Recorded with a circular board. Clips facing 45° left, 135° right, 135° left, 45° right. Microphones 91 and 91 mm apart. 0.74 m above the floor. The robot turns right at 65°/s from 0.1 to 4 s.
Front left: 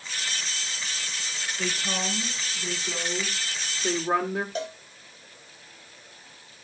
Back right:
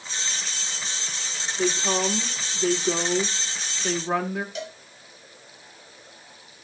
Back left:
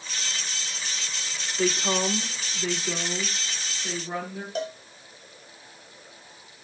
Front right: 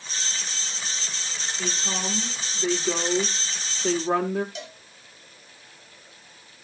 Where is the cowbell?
95° left, 1.9 m.